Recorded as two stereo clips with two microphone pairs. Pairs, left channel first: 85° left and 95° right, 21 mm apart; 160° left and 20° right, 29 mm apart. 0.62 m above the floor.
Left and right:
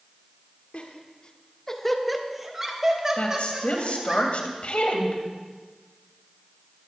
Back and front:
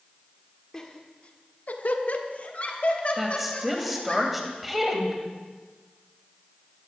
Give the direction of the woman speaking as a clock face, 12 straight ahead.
10 o'clock.